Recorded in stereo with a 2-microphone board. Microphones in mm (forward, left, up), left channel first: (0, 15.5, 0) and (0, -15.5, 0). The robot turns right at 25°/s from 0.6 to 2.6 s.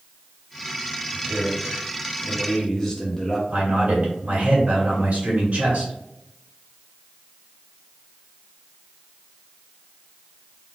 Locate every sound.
1.1 s a man speaking: 20° right, 0.7 m; by 3.4 s 15° left, 0.7 m
3.5 s a man speaking: 45° right (ahead or behind), 1.9 m